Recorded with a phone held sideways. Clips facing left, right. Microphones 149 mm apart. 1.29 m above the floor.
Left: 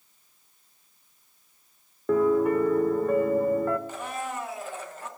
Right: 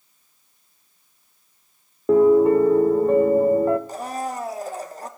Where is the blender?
40° right (ahead or behind), 0.9 m.